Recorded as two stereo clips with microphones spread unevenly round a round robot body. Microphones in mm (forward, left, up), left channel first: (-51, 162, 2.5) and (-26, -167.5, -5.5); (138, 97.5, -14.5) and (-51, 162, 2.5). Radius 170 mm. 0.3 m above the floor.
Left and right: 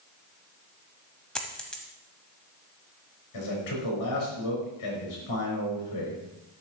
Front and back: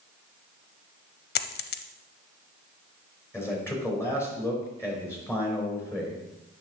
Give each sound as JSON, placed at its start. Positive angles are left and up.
{"t": 1.4, "sound": "a dropped coin", "azimuth_deg": 5, "distance_m": 0.6}
{"t": 3.3, "sound": "a man speaking", "azimuth_deg": 55, "distance_m": 4.0}